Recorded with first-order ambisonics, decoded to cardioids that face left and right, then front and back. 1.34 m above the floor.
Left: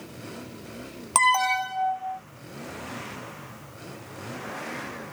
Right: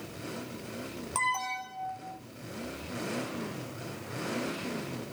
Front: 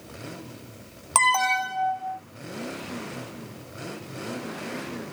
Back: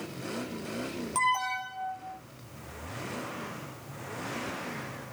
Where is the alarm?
40° left, 0.6 m.